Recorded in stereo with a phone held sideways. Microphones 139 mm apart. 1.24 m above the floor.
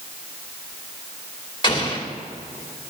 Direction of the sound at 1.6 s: 35° left (ahead or behind).